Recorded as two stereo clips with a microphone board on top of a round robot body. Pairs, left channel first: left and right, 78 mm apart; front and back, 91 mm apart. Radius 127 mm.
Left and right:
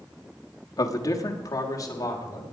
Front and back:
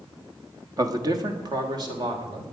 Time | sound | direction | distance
0.8 | a man speaking | 130° left | 1.4 m